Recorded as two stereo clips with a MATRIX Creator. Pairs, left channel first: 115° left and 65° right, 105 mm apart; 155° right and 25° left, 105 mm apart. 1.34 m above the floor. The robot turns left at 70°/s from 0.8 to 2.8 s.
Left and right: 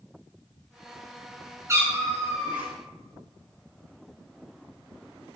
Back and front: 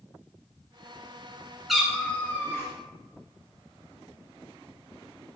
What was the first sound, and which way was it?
A cat meowing, 60° right.